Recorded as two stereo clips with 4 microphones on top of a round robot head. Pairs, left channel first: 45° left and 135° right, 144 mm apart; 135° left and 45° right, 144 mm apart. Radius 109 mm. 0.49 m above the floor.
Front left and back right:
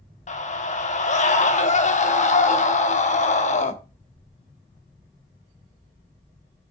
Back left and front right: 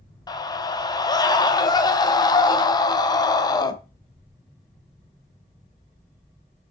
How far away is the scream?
About 2.5 m.